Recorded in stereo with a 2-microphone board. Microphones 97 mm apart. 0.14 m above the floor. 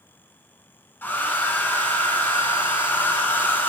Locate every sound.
1.0 s a hair dryer: 20° left (ahead or behind), 0.8 m